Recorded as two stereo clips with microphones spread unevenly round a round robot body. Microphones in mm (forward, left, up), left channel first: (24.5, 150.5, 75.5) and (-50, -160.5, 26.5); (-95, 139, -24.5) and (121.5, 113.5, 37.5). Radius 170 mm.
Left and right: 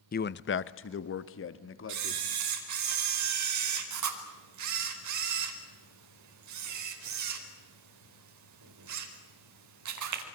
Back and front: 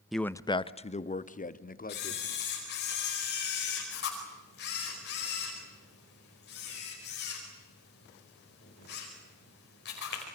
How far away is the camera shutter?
About 4.5 m.